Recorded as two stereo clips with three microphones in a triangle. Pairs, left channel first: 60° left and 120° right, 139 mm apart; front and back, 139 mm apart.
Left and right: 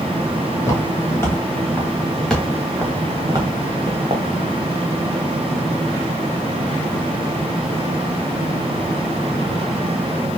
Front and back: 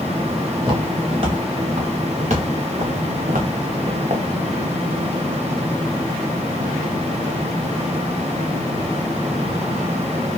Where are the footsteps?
125° left, 3 m; by 4.2 s 155° right, 1.5 m.